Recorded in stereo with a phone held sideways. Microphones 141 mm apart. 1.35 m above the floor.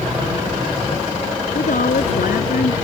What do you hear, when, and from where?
1.6 s a woman speaking: 85° left